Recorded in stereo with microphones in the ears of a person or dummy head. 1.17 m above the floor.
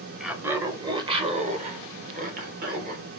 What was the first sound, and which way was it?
Laughter, 5° right (ahead or behind).